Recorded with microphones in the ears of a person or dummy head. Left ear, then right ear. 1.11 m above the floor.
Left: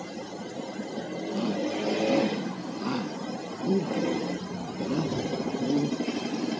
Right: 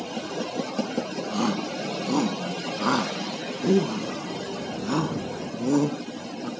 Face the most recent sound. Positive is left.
turn(degrees=-45)  # may be behind; listen again after turning